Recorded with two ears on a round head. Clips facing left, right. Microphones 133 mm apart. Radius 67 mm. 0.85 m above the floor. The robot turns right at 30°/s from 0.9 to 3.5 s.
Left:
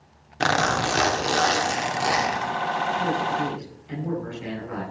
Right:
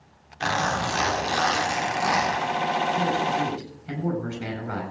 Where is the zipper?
110° left, 2.5 m; by 2.5 s 155° left, 2.5 m.